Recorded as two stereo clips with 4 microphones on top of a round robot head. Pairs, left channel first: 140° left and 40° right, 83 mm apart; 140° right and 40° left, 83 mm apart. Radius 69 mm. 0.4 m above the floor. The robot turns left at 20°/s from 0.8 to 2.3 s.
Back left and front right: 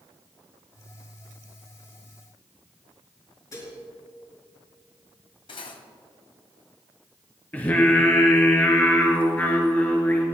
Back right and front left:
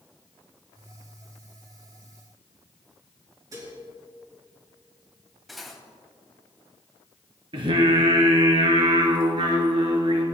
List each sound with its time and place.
3.5 s dishes clattering: 90° left, 5 m
5.5 s cutlery clinking: 125° left, 1.7 m
7.5 s singing: 70° left, 2 m